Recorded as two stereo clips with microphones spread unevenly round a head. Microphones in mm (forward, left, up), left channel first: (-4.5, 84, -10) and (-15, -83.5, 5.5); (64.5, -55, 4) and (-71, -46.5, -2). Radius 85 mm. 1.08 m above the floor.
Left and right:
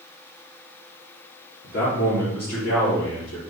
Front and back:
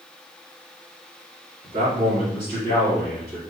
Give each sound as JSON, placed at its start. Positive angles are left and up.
{"t": 1.6, "sound": "a man speaking", "azimuth_deg": 100, "distance_m": 1.7}